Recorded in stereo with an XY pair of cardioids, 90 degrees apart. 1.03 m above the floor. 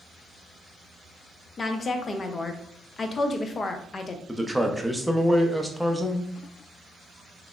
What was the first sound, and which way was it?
A woman speaking, 40° left.